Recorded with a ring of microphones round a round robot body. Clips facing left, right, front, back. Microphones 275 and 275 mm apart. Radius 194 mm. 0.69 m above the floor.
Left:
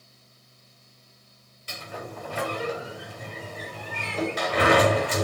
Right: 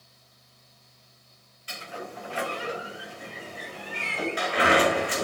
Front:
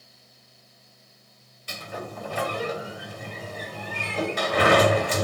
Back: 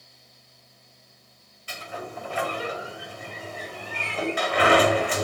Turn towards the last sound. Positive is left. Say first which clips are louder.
# left 1 dB, front 1 dB
turn(degrees=45)